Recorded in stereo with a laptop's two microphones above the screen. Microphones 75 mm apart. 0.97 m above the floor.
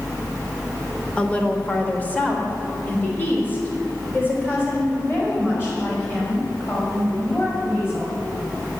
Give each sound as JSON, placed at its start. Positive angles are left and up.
{"t": 1.2, "sound": "a woman speaking", "side_deg": 15, "distance_m": 1.1}